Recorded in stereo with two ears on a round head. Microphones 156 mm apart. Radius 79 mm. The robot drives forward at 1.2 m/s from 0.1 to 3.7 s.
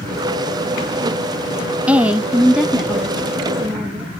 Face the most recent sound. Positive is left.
turn(degrees=0)  # may be behind; listen again after turning